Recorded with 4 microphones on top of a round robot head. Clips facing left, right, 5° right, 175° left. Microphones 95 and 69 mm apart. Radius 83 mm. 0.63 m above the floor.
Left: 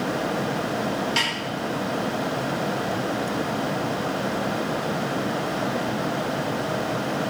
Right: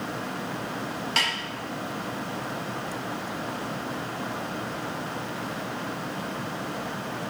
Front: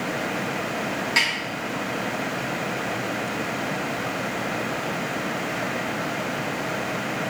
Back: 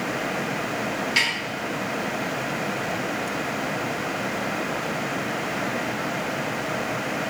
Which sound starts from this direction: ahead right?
A snare drum, at 1.2 s.